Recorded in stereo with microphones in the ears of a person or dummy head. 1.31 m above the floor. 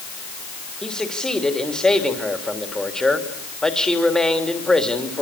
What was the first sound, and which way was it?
A man speaking, 5° left (ahead or behind).